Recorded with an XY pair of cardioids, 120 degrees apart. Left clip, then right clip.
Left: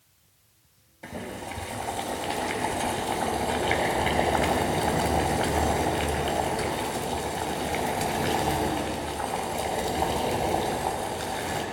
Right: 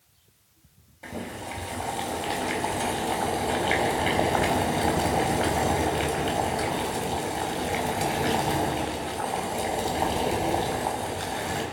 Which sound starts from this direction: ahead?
Boiling, at 1.0 s.